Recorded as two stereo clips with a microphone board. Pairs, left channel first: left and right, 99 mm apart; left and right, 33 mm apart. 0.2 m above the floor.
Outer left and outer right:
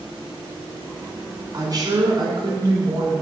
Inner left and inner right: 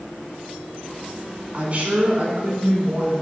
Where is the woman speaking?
40° right (ahead or behind), 1.6 m; by 3.1 s 55° right (ahead or behind), 2.5 m.